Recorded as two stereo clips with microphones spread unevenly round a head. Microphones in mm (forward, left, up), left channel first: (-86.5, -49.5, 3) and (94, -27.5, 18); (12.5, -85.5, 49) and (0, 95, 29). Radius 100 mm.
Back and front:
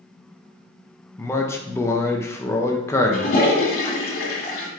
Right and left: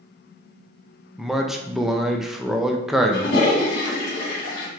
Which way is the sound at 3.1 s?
130° right.